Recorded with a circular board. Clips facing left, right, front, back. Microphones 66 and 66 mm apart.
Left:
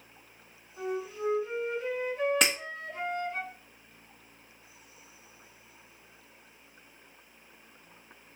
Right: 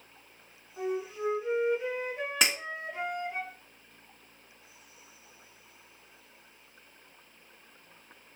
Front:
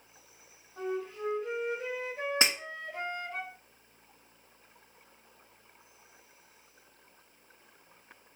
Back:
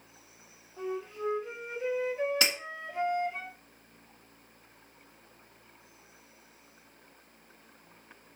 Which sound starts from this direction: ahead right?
A flute, at 0.8 s.